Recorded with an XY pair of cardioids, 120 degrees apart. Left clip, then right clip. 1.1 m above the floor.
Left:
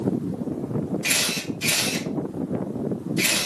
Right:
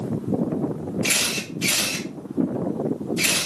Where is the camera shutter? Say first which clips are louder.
Right 1 dB; 5° right, 2.5 m.